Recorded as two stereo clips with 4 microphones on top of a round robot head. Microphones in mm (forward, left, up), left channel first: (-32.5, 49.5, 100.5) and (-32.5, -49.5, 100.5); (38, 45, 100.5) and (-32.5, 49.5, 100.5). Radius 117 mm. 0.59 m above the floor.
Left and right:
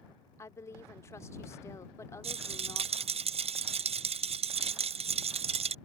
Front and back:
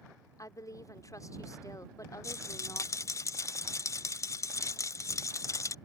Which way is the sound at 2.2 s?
60° right.